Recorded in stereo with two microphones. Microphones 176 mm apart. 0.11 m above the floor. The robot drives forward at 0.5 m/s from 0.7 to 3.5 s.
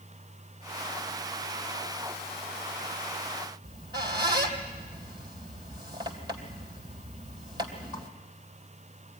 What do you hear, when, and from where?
3.6 s a squeak: 25° right (ahead or behind), 2.5 m